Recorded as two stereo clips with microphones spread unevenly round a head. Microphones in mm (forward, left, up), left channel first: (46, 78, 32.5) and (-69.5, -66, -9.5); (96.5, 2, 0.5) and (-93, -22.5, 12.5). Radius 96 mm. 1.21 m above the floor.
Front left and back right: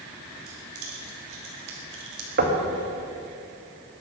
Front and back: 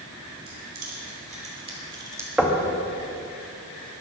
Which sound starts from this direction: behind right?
Keys jangling, at 0.5 s.